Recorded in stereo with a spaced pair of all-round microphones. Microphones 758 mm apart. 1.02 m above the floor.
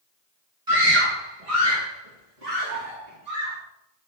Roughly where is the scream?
Right.